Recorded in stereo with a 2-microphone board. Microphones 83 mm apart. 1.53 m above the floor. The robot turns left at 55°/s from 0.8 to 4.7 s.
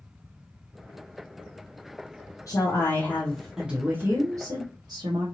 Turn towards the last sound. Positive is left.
turn(degrees=-70)